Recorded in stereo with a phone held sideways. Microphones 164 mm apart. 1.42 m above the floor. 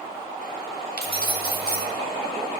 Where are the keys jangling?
70° right (ahead or behind), 1.2 m.